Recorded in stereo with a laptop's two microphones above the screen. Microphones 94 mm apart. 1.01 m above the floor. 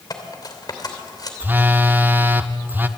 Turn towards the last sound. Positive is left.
turn(degrees=-25)  # may be behind; listen again after turning